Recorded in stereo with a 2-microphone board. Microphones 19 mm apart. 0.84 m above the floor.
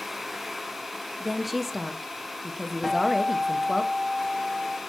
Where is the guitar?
5° right (ahead or behind), 2.5 m.